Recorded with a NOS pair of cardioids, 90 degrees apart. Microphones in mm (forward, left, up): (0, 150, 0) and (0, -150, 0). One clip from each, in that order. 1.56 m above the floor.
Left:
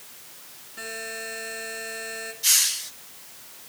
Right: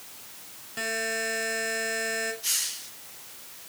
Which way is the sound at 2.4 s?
45° left.